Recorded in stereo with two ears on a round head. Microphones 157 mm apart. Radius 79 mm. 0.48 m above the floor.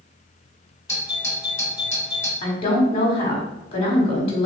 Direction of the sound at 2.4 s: 30° left (ahead or behind).